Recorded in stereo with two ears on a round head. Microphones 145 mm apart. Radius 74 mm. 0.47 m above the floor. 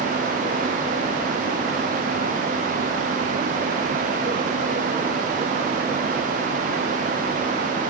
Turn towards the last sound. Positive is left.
No sound to turn to.